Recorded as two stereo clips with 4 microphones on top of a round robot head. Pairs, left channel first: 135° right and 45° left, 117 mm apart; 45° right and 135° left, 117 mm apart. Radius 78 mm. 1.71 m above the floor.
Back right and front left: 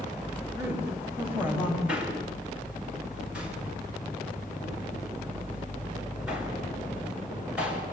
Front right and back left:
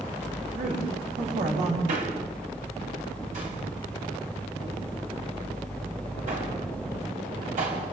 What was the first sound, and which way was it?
A woman speaking, 120° left.